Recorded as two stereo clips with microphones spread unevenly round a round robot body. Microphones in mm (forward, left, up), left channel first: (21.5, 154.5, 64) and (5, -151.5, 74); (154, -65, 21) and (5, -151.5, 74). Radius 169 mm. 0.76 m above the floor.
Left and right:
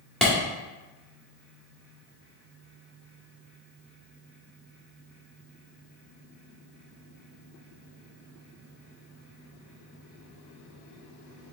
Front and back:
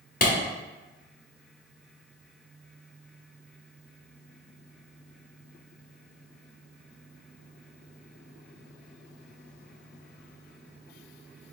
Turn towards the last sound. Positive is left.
turn(degrees=0)